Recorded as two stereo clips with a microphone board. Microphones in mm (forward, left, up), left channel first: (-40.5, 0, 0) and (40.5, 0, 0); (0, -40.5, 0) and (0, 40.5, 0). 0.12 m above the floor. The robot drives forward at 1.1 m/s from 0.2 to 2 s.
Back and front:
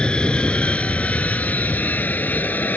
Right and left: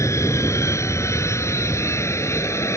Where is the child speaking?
No child speaking in this recording.